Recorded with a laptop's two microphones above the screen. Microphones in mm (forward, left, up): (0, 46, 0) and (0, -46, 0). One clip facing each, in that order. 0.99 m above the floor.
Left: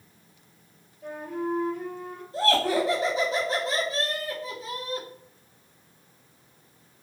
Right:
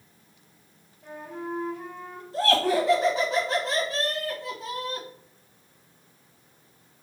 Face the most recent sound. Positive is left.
turn(degrees=-70)  # may be behind; listen again after turning